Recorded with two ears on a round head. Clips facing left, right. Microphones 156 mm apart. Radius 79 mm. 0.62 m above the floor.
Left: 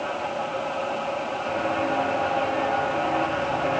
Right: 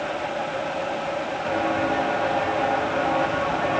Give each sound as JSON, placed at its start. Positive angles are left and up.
{"t": 1.4, "sound": "footsteps", "side_deg": -75, "distance_m": 5.5}